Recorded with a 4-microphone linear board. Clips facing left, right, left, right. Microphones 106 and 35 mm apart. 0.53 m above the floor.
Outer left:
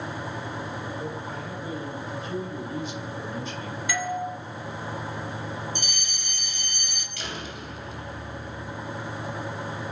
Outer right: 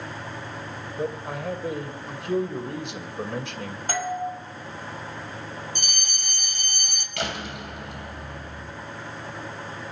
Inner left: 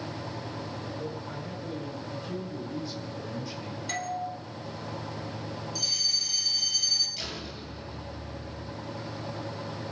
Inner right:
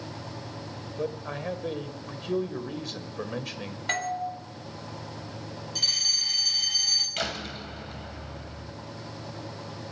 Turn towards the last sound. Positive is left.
turn(degrees=-65)  # may be behind; listen again after turning